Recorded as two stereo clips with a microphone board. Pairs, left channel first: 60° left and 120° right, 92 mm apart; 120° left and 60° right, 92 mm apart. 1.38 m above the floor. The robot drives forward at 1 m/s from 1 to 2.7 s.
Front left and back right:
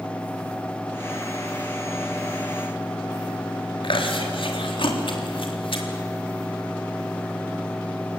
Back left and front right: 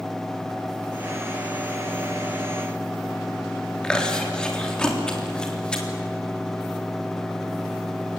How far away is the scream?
No scream in this recording.